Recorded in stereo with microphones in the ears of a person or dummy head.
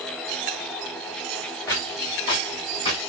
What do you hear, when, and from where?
1.7 s footsteps: 20° left (ahead or behind), 4.5 m; by 3.0 s 35° left (ahead or behind), 4.5 m